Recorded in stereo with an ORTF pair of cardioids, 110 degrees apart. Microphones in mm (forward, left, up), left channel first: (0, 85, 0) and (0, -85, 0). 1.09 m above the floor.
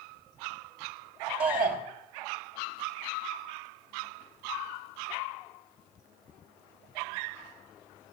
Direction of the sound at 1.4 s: 55° right.